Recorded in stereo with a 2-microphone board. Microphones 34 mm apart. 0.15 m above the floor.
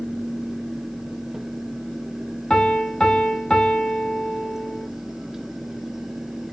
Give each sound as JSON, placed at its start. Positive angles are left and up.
{"t": 2.5, "sound": "a piano", "side_deg": 25, "distance_m": 0.6}